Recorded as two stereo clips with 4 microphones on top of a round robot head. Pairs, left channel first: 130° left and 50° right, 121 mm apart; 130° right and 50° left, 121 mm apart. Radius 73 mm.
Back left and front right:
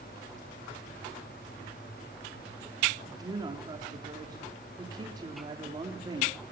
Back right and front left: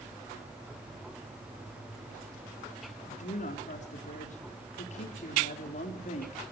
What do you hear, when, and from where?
3.0 s a woman speaking: 110° right, 3.5 m